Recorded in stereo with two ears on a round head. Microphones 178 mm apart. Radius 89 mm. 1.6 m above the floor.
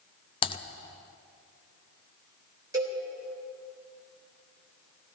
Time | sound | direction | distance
0.4 | typing on a keyboard | 25° left (ahead or behind) | 0.6 m
2.7 | a cowbell | 20° right (ahead or behind) | 3.5 m